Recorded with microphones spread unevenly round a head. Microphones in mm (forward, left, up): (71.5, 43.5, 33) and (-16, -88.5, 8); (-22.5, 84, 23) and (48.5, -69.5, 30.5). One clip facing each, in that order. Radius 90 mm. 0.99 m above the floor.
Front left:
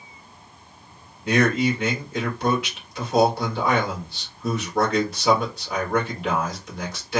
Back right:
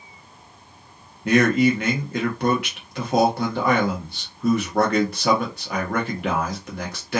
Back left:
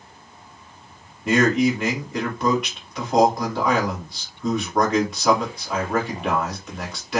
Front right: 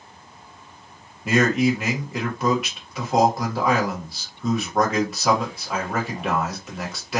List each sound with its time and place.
1.2 s a man speaking: 155° right, 1.8 m